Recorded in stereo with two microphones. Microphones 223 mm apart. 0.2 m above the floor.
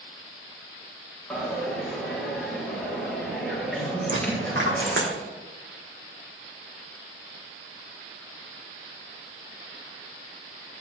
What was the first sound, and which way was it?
A dropped coin, centre (ahead or behind).